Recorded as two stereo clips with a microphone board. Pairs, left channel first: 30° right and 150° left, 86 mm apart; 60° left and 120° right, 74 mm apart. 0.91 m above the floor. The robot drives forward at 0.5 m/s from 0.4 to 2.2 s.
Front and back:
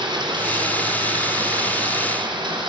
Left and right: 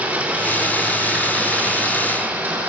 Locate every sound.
0.0 s running water: 175° left, 3 m